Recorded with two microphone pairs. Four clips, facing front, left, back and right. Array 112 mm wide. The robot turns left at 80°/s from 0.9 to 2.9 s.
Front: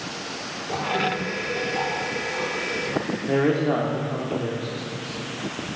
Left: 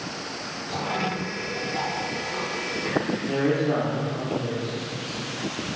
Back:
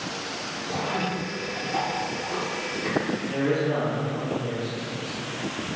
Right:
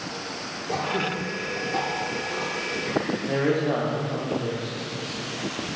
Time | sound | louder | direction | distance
0.7 | throat clearing | right 1 dB, front 3 dB | 60° right | 1.4 m
3.3 | a man speaking | even, front 6 dB | 25° right | 0.9 m